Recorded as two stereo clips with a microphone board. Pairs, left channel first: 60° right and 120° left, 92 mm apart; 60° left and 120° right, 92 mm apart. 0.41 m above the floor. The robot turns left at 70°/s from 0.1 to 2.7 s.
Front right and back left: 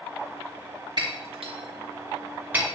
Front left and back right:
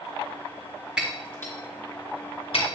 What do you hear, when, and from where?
1.0 s breaking glass: 155° left, 2.5 m; by 2.6 s 40° left, 2.5 m